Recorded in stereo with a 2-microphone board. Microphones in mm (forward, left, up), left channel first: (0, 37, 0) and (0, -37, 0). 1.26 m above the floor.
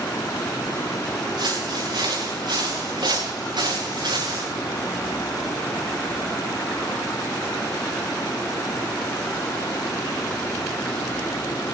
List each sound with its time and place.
1.4 s footsteps: 75° right (ahead or behind), 9 m; by 4.5 s 80° right, 7.5 m